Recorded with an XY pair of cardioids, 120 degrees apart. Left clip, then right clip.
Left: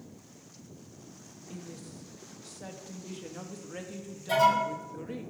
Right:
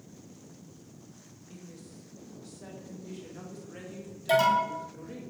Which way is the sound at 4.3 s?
65° right.